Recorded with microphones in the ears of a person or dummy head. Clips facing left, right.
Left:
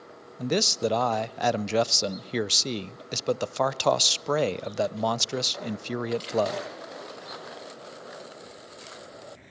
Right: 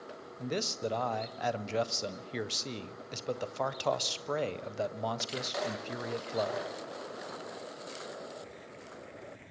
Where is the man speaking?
65° left (ahead or behind), 0.5 m.